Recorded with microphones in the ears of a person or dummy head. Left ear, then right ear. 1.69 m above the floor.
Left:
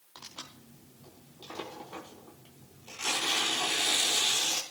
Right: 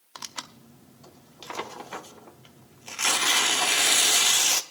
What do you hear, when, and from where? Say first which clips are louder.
0.1 s tearing paper: right 7 dB; 60° right (ahead or behind), 0.6 m